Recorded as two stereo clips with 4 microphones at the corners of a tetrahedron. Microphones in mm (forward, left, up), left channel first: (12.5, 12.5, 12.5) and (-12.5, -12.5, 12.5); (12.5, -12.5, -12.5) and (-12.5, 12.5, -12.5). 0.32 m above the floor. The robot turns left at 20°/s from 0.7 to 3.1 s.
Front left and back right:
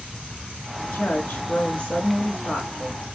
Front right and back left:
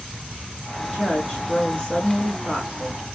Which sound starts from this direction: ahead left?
A woman speaking, at 0.8 s.